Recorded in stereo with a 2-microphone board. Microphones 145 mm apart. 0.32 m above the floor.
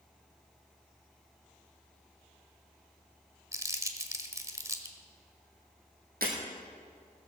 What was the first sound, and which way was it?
Crumpling, 20° right (ahead or behind).